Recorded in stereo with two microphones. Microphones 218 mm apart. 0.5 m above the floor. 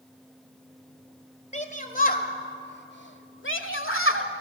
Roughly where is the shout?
Left.